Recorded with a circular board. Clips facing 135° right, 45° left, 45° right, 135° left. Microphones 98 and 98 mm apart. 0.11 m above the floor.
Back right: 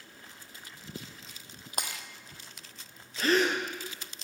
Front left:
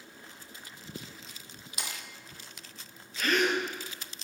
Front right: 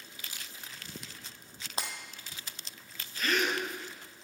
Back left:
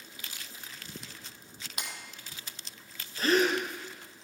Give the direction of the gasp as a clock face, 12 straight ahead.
6 o'clock.